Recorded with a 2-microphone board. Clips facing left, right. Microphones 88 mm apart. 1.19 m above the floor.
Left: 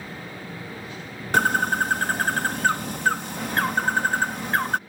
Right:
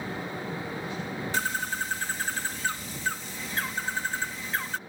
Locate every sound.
1.3 s a bird: 60° left (ahead or behind)